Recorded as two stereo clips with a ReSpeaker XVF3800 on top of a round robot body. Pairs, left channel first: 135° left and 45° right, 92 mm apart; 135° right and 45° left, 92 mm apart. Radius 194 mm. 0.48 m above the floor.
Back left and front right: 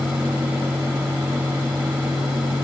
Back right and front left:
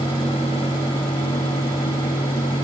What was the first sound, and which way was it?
Only background noise.